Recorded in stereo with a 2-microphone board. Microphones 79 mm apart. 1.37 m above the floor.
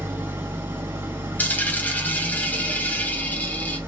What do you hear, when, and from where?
0.0 s an engine running: 30° right (ahead or behind), 1.8 m
1.4 s a dropped coin: 20° left (ahead or behind), 0.7 m